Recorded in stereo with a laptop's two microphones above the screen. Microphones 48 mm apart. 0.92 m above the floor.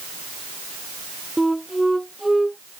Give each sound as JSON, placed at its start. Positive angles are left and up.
{"t": 1.4, "sound": "a flute", "side_deg": -5}